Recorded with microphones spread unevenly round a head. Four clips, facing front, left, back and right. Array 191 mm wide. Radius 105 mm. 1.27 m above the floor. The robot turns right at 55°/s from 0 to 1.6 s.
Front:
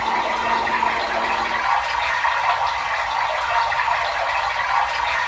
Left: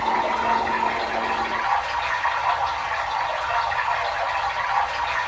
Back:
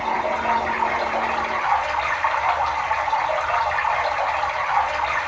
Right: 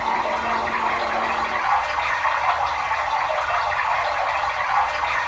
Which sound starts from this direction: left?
Running water, at 0.0 s.